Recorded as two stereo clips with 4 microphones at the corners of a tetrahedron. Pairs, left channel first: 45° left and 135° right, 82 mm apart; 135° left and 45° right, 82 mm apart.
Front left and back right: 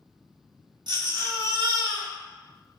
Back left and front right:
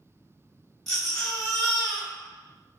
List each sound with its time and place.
0.9 s a baby crying: 140° right, 1.2 m